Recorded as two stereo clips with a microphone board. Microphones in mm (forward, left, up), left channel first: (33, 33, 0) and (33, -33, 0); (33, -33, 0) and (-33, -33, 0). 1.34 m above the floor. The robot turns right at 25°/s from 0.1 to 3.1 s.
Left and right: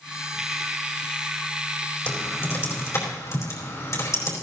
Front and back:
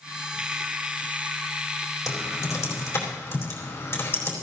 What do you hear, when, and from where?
2.1 s typing on a keyboard: 30° left, 4.5 m; by 4.3 s 55° left, 4.5 m